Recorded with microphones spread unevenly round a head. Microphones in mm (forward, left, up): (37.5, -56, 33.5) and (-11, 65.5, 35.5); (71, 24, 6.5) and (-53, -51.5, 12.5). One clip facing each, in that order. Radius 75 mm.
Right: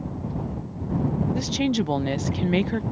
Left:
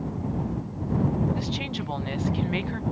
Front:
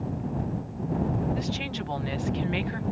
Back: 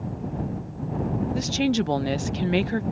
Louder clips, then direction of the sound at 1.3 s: Right 7 dB, back 8 dB; 115° right.